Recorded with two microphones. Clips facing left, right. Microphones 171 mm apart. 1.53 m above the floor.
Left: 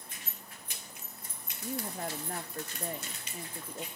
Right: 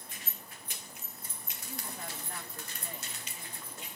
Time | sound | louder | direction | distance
1.6 | a woman speaking | left 8 dB | 45° left (ahead or behind) | 1.1 m